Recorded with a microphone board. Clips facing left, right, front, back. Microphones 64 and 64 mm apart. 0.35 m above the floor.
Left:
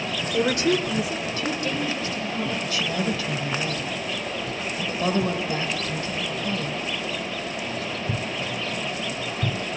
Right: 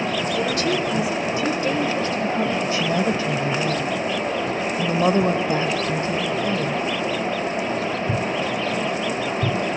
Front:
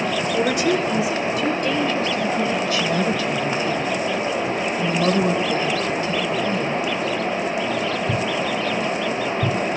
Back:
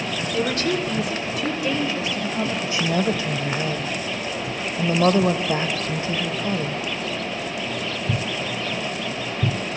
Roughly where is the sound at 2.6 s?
Behind right.